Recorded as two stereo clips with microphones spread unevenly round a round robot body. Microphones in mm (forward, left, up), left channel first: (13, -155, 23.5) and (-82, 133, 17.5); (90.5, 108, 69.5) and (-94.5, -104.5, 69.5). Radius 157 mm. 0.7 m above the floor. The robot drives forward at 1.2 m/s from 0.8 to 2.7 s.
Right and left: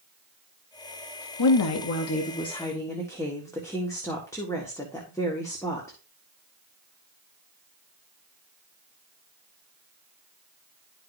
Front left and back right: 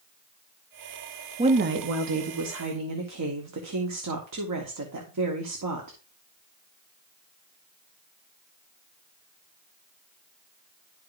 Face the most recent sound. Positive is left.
turn(degrees=-150)